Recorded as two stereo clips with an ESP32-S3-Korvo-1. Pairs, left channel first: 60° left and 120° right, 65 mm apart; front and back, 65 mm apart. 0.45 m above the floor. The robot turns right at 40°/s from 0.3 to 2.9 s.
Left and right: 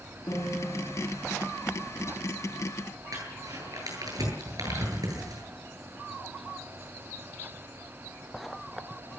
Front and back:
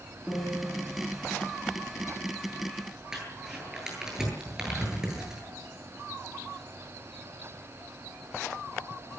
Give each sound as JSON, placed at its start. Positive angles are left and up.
{"t": 0.3, "sound": "a piano", "azimuth_deg": 100, "distance_m": 5.0}
{"t": 3.1, "sound": "crumpling", "azimuth_deg": -100, "distance_m": 10.0}